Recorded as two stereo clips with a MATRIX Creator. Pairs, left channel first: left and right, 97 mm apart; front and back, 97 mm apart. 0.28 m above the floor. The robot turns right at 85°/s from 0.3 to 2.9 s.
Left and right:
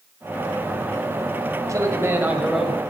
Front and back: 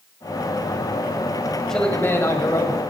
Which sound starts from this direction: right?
A man speaking, at 1.7 s.